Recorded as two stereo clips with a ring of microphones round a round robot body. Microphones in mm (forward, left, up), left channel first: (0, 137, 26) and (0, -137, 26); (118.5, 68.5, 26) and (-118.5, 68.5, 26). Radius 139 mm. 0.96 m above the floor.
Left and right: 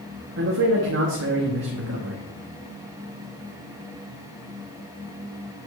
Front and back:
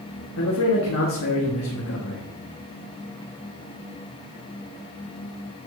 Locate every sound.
0.4 s a man speaking: 40° right, 1.2 m